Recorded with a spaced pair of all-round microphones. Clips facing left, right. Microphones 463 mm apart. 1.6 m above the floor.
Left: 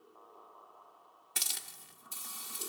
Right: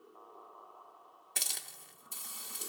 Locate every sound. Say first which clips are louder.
1.4 s a hiss: right 1 dB; 25° left (ahead or behind), 1.4 m